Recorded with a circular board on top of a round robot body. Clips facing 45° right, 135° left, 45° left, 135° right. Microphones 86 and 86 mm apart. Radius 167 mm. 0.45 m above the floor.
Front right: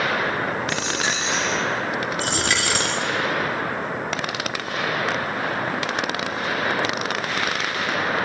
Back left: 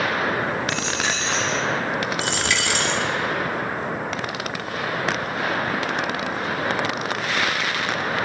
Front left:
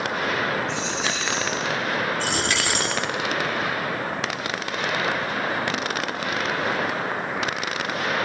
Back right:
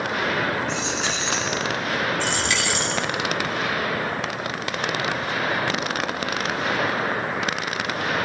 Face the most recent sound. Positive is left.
turn(degrees=0)